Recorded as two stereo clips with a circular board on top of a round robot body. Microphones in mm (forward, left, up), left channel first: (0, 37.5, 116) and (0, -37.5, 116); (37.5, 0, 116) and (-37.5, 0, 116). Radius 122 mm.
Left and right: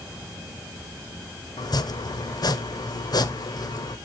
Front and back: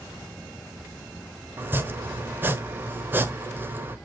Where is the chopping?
120° left, 1.4 m.